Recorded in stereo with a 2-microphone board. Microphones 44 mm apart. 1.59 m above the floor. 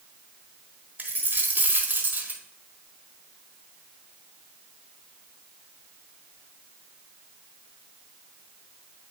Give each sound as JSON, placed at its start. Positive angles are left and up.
{"t": 1.0, "sound": "a dropped coin", "side_deg": -45, "distance_m": 1.2}